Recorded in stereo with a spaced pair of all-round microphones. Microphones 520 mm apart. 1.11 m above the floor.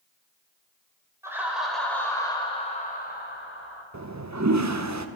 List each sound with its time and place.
1.2 s laughter: 5° right (ahead or behind), 4.5 m; by 3.8 s 25° left (ahead or behind), 4 m
3.9 s a toilet flushing: 35° right (ahead or behind), 0.8 m